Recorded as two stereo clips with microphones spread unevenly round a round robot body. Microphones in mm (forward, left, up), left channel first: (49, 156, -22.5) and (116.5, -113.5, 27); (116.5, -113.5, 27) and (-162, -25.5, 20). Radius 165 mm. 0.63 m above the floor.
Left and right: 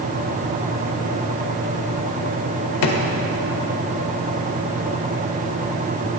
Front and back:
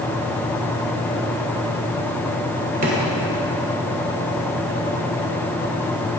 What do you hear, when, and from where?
2.8 s a drawer: 95° left, 1.2 m